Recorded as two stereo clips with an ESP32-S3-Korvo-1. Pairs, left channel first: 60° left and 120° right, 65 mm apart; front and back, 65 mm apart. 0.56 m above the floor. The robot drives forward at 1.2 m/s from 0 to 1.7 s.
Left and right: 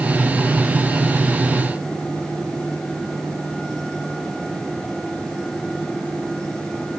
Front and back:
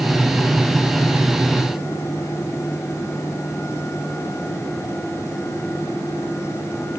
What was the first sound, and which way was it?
Only background noise.